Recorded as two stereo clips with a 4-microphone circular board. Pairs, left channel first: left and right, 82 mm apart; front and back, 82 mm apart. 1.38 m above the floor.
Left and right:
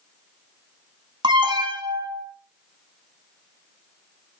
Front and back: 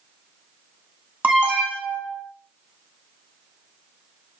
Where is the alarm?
105° right, 3.5 m.